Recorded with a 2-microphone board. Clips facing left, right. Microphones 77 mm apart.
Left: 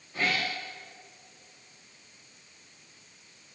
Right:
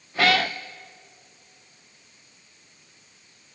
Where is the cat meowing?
80° right, 0.8 m.